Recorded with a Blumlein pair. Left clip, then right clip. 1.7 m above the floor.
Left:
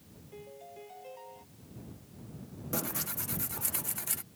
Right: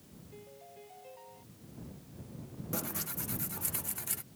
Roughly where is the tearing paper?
Ahead.